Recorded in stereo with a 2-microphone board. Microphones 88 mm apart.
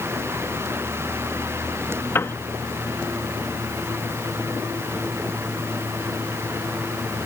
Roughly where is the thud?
No thud in this recording.